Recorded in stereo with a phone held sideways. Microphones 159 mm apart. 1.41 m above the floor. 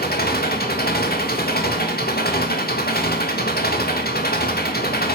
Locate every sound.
0.0 s an engine running: 80° left, 1.7 m